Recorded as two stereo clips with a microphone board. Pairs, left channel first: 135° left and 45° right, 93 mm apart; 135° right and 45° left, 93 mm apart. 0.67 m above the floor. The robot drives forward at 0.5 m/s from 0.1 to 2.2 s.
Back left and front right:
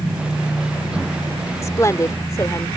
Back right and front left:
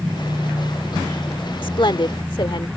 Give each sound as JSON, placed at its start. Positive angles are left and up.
{"t": 1.6, "sound": "a woman speaking", "azimuth_deg": -170}